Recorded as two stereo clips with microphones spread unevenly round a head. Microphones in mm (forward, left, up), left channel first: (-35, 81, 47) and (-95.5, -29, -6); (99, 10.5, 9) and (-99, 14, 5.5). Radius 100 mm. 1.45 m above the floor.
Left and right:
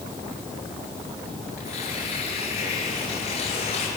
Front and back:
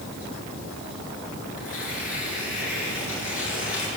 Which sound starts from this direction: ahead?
Tearing paper, at 1.6 s.